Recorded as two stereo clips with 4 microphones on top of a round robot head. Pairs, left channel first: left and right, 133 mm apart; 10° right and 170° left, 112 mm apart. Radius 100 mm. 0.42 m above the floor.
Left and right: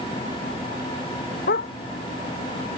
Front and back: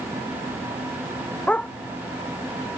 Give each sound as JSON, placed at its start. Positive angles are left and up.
{"t": 1.5, "sound": "a dog barking", "azimuth_deg": 70}